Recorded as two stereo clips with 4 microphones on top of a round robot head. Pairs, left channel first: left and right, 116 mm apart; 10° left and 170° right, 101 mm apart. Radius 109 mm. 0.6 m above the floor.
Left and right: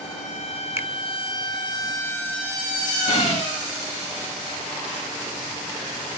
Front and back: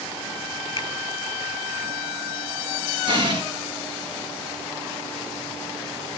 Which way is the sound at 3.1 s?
150° left.